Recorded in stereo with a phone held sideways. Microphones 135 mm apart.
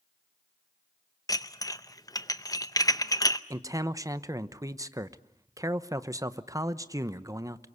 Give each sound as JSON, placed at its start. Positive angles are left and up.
{"t": 1.3, "sound": "dishes clattering", "side_deg": 25, "distance_m": 0.7}
{"t": 3.5, "sound": "a man speaking", "side_deg": -25, "distance_m": 0.9}